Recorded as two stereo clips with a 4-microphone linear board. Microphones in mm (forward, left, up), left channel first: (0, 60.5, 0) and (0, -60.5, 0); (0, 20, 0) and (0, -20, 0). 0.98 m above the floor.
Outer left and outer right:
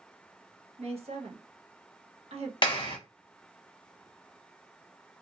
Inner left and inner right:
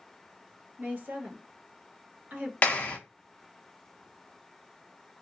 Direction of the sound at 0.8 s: 55° right (ahead or behind).